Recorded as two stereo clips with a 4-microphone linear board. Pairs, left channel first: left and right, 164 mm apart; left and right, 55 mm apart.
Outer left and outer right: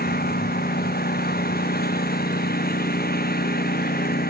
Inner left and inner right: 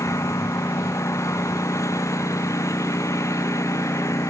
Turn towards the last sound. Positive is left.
turn(degrees=80)